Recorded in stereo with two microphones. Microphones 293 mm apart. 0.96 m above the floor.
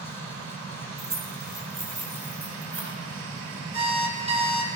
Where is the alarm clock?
20° right (ahead or behind), 1.2 m.